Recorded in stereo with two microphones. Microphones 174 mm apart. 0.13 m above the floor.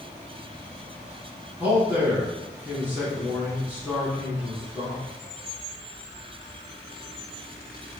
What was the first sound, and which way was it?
A man speaking, 10° right (ahead or behind).